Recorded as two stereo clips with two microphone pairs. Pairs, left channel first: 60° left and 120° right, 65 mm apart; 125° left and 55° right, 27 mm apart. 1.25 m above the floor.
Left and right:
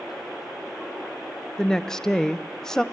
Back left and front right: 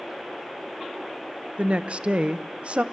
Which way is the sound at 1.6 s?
25° right.